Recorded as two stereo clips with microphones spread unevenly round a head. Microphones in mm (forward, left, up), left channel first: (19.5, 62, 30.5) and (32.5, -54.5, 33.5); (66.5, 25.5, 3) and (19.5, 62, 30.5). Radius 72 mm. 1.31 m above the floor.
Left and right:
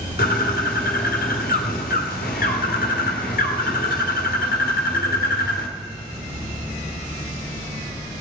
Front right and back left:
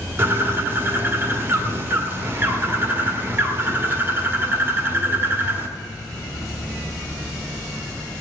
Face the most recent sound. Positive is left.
turn(degrees=110)